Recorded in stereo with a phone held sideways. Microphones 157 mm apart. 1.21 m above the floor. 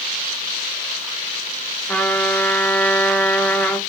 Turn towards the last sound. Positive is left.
turn(degrees=10)  # may be behind; listen again after turning